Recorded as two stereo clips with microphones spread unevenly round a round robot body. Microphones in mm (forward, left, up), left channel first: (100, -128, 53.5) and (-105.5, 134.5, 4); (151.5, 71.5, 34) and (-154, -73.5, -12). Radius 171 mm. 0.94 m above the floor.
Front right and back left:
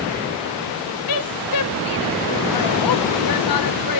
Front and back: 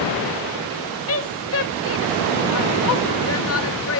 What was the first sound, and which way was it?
A woman speaking, 25° right.